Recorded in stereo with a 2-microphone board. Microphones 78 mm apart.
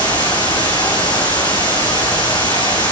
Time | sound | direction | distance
0.0 | running water | 65° left (ahead or behind) | 4 m